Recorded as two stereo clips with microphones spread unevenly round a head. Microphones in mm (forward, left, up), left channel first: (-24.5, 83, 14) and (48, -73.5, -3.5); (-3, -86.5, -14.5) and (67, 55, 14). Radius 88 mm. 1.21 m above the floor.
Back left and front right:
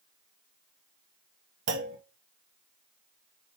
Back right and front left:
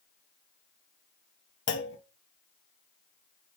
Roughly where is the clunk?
Right.